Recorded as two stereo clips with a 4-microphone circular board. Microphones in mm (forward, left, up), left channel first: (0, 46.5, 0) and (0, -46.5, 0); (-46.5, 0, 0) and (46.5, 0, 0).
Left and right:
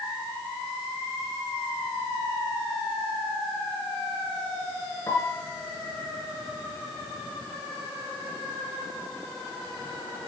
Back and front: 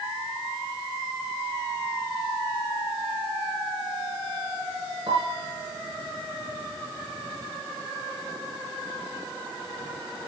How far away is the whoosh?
No whoosh in this recording.